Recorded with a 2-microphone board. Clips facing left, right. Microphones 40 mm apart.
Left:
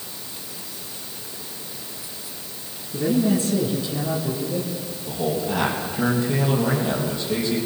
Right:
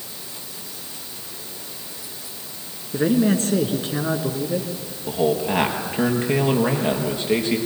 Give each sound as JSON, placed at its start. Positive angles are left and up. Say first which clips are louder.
{"t": 2.9, "sound": "a man speaking", "louder": "right 2 dB", "side_deg": -55, "distance_m": 2.5}
{"t": 5.1, "sound": "a man speaking", "louder": "right 4 dB", "side_deg": -55, "distance_m": 4.0}